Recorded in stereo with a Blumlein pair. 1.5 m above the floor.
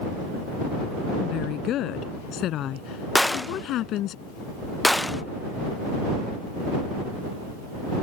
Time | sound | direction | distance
1.2 | a woman speaking | 35° left | ?
3.1 | a gunshot | 5° left | ?